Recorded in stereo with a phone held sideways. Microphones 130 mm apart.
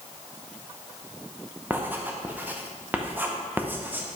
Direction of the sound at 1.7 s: 15° right (ahead or behind).